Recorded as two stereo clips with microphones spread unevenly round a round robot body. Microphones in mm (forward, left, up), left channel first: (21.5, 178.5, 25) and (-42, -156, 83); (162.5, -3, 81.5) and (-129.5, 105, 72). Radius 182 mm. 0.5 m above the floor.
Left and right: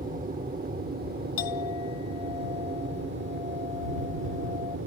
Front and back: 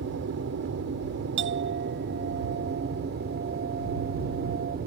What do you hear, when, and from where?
0.0 s an aircraft: 165° right; by 4.9 s 150° right
1.4 s a clink: 105° left